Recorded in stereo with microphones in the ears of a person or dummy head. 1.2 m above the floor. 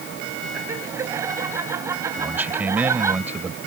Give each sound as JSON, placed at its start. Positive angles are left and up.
{"t": 0.5, "sound": "laughter", "side_deg": -20}
{"t": 2.2, "sound": "a man speaking", "side_deg": -10}